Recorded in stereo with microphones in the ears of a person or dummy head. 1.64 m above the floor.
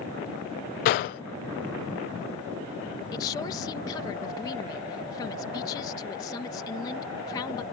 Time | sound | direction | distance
0.8 | a gunshot | 45° left (ahead or behind) | ?
3.1 | a woman speaking | 20° left (ahead or behind) | ?